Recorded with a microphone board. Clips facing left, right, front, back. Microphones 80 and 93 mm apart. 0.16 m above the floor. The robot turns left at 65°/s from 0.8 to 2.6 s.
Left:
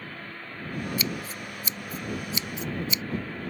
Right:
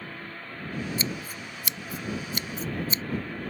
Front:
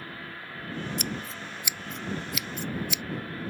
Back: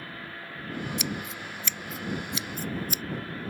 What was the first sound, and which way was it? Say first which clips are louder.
Scissors: left 1 dB, back 1 dB; 30° right.